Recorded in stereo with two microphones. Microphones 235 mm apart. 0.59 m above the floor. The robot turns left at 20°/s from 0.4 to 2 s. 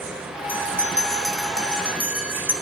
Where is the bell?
10° left (ahead or behind), 0.8 m; by 2.5 s 5° right (ahead or behind), 0.8 m.